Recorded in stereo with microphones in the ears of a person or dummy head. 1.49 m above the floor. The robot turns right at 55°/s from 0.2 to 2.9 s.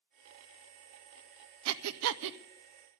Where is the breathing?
70° right (ahead or behind), 0.6 m; by 2.4 s 65° right (ahead or behind), 0.6 m.